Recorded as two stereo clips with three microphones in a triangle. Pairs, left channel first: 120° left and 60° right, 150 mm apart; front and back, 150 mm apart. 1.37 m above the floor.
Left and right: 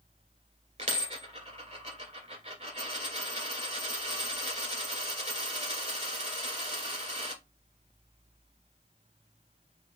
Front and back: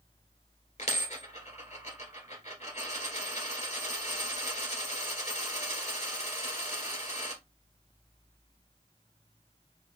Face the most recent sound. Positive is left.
turn(degrees=-30)